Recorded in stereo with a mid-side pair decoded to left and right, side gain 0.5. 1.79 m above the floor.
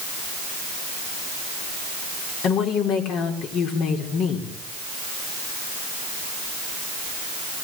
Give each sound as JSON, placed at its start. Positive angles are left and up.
{"t": 2.4, "sound": "a woman speaking", "azimuth_deg": 70, "distance_m": 5.0}